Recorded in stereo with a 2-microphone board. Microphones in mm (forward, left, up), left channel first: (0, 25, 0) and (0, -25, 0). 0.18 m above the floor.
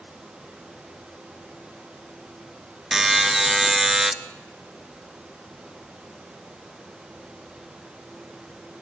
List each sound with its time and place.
2.9 s a buzzer: 10° right (ahead or behind), 1.1 m